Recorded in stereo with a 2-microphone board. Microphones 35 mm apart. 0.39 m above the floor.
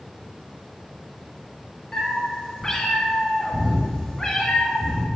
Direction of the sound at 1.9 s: 10° left (ahead or behind).